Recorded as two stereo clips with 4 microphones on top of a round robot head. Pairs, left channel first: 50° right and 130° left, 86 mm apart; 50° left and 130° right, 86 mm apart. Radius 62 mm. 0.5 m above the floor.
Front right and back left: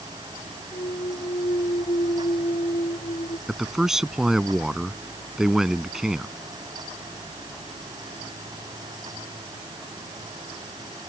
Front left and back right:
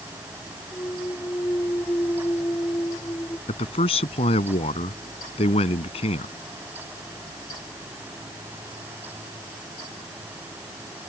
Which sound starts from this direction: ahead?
A clunk, at 0.7 s.